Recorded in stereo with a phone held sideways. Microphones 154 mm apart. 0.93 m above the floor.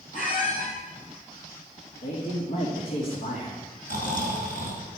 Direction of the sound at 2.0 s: 70° left (ahead or behind).